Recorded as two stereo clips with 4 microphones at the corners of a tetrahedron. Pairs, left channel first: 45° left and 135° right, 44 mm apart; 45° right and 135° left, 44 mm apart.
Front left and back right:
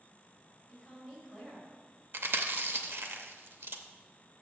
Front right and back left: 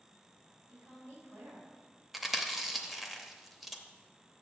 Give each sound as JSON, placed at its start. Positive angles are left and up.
{"t": 0.7, "sound": "a woman speaking", "azimuth_deg": 135, "distance_m": 2.5}
{"t": 2.1, "sound": "chewing", "azimuth_deg": -140, "distance_m": 0.6}